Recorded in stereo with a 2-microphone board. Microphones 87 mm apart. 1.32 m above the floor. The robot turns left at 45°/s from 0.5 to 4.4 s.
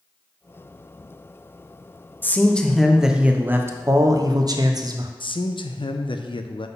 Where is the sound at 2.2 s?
30° left, 0.7 m; by 5.1 s 70° right, 0.7 m.